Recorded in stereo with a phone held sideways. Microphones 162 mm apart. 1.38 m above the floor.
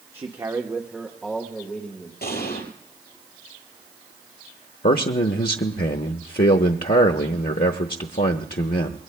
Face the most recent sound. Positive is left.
turn(degrees=70)  # may be behind; listen again after turning